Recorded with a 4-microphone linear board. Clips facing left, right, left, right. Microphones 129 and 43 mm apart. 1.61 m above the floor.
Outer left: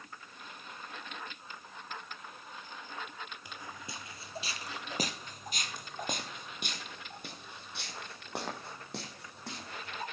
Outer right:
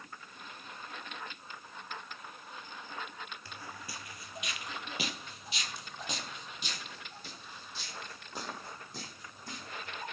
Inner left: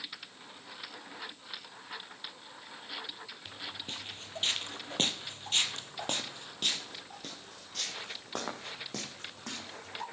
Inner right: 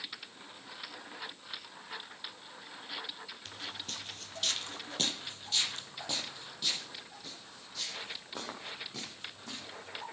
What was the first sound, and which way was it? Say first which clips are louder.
Footsteps: even, inner left 1 dB; 15° left (ahead or behind).